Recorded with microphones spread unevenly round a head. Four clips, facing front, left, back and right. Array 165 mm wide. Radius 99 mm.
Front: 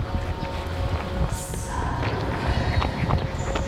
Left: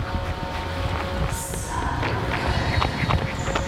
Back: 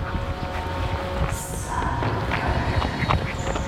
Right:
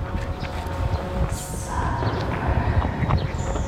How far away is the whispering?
About 3 m.